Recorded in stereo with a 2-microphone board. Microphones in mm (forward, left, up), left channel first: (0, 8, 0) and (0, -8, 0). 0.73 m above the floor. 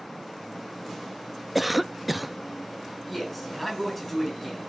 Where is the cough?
5° right (ahead or behind), 0.6 m.